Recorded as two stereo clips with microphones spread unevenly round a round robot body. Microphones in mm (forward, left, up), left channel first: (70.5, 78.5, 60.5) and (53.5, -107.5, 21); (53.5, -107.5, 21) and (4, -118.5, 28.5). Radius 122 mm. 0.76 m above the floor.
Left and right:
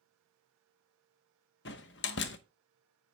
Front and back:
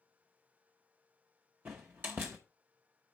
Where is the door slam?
125° left, 0.7 m.